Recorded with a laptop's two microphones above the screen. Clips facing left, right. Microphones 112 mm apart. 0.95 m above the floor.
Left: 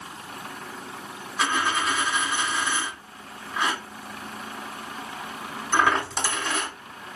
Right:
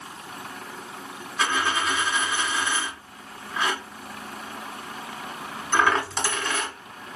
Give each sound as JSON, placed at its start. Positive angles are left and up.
{"t": 1.4, "sound": "a dropped coin", "side_deg": 5, "distance_m": 1.1}